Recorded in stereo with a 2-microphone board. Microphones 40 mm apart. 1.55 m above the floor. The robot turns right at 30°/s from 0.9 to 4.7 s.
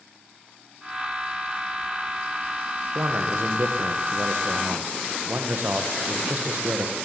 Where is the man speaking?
110° right, 1.5 m; by 7.0 s 55° right, 1.5 m.